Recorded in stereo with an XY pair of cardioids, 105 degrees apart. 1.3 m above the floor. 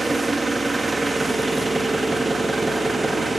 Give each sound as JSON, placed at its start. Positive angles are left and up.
{"t": 0.0, "sound": "an engine running", "azimuth_deg": -20, "distance_m": 1.4}